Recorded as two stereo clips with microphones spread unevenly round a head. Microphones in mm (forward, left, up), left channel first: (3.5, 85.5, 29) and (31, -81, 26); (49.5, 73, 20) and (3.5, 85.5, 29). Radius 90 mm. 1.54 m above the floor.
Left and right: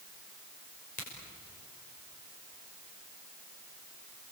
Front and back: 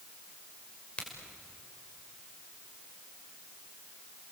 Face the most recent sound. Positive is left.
turn(degrees=50)